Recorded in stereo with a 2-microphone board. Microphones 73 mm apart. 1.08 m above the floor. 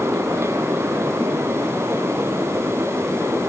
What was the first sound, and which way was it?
Only background noise.